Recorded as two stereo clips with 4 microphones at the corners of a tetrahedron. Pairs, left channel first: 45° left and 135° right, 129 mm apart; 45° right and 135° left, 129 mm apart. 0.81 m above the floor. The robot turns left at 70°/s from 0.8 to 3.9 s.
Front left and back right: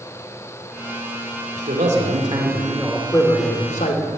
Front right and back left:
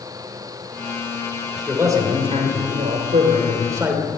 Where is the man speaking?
135° right, 2.5 m; by 4.1 s 60° left, 2.5 m.